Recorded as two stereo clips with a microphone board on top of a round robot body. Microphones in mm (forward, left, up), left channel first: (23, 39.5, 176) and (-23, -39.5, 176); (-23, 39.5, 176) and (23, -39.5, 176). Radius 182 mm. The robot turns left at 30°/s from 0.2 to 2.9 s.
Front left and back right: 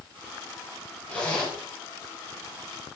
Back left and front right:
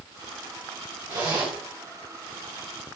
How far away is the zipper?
About 3 m.